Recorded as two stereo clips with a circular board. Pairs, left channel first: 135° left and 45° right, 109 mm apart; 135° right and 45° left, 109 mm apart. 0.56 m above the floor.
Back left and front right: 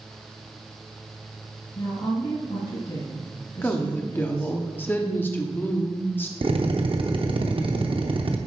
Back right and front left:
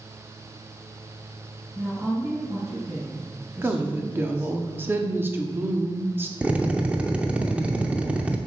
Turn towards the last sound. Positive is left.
turn(degrees=-30)